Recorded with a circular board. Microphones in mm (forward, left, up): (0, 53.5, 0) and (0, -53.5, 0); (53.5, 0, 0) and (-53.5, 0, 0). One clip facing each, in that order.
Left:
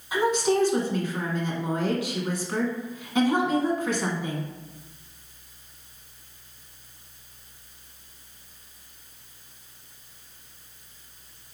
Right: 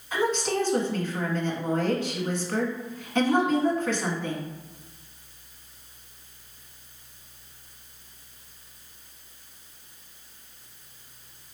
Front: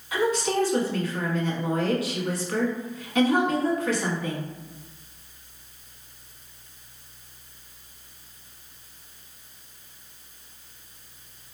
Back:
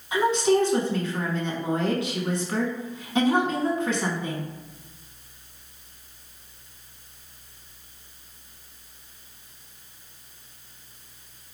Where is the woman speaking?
155° left, 1.1 m.